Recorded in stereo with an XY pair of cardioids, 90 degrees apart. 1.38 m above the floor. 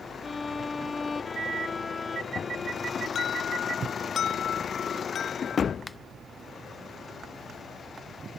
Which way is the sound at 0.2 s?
30° left.